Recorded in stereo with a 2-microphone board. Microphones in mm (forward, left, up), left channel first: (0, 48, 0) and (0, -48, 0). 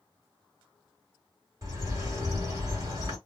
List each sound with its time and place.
1.6 s a bird: 35° right (ahead or behind), 1.6 m